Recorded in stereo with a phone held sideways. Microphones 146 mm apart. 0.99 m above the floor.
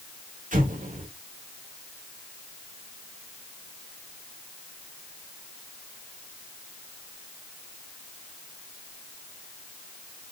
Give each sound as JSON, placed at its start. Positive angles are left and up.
{"t": 0.5, "sound": "an explosion", "side_deg": -65, "distance_m": 1.3}